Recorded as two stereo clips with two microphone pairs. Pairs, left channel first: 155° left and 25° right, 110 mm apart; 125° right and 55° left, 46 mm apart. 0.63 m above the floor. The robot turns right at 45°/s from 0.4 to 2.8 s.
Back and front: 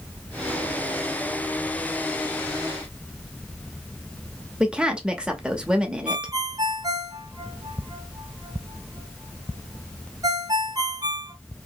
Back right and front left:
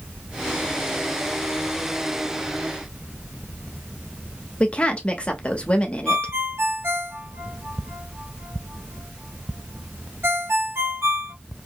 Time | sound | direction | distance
4.6 | a woman speaking | 95° right | 0.7 m
6.1 | a ringtone | 30° left | 0.7 m